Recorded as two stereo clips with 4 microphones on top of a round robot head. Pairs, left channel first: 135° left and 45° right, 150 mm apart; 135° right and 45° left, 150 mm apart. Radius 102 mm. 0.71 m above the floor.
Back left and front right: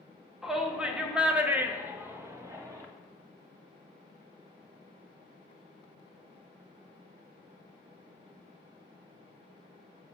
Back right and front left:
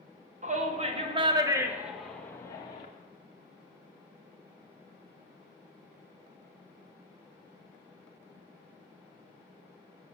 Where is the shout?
40° left, 1.6 m; by 2.9 s 105° right, 1.3 m.